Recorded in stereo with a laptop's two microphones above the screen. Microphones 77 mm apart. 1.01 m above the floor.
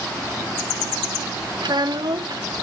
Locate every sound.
1.6 s a child speaking: 70° right (ahead or behind), 0.8 m